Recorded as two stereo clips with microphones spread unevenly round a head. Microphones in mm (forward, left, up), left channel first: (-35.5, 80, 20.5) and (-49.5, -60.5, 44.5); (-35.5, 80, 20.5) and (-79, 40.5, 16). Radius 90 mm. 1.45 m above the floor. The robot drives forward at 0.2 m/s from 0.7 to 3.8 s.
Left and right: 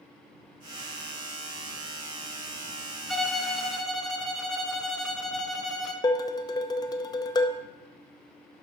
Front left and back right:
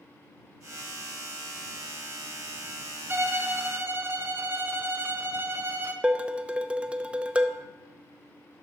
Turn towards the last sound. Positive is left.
turn(degrees=150)